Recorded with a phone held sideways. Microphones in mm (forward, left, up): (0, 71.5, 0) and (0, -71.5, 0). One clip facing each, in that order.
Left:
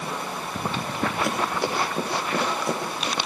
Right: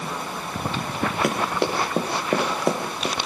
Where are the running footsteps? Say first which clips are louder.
Right 2 dB; 70° right (ahead or behind), 7 m; by 3.2 s 80° right, 5.5 m.